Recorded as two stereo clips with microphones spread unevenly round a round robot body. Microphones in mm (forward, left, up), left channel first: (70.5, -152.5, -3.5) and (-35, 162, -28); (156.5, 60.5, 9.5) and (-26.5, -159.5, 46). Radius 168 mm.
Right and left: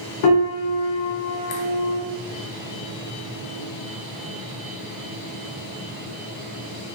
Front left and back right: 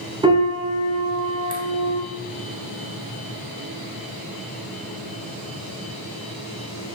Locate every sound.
0.2 s a piano: 55° right, 0.6 m